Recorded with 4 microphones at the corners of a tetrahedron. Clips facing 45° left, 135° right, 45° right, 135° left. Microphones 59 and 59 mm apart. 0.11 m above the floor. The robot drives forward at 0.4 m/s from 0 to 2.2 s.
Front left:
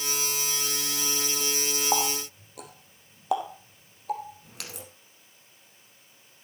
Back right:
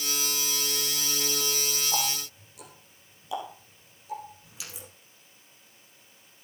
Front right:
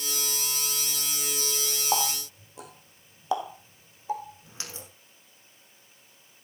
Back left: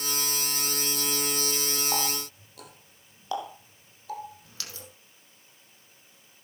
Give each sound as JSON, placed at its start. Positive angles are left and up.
{"t": 1.9, "sound": "a running tap", "azimuth_deg": 20, "distance_m": 3.0}